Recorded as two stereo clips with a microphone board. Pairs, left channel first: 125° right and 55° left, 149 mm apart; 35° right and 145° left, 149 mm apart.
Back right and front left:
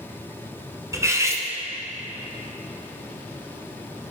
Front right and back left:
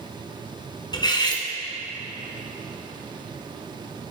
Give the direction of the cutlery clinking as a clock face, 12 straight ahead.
12 o'clock.